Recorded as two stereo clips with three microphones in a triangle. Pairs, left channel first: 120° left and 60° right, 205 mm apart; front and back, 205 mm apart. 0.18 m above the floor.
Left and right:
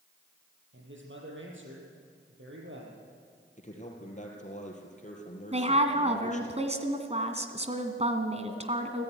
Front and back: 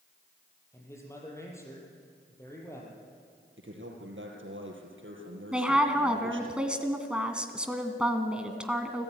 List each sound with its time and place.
0.7 s a man speaking: 75° right, 6 m
3.6 s a man speaking: 170° left, 4 m
5.5 s a woman speaking: 95° right, 2 m